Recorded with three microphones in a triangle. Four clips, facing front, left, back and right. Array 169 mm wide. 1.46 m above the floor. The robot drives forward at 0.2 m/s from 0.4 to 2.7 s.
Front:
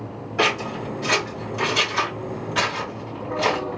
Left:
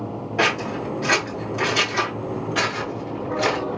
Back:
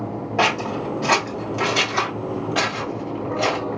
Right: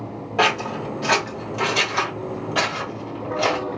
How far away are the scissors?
About 2.5 m.